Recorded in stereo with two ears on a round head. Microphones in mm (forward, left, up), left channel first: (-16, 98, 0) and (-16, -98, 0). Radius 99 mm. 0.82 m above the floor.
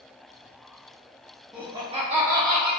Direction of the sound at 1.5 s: Centre (ahead or behind).